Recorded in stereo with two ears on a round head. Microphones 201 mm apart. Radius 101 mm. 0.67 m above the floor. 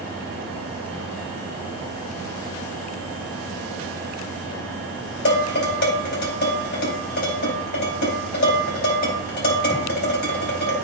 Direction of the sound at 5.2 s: 45° left (ahead or behind).